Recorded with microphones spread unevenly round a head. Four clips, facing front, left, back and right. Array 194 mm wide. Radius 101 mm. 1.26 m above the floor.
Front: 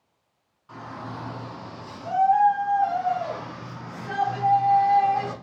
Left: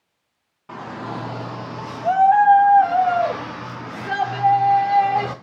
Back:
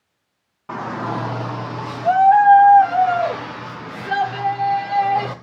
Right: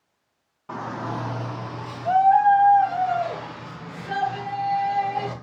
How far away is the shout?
About 1.9 m.